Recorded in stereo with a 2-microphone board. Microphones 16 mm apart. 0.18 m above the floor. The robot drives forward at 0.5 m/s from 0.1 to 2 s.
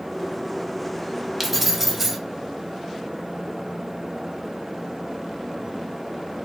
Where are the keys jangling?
10° right (ahead or behind), 0.8 m.